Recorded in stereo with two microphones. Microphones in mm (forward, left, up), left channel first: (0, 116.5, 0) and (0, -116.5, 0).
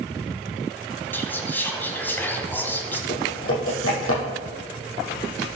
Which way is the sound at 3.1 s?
65° left (ahead or behind).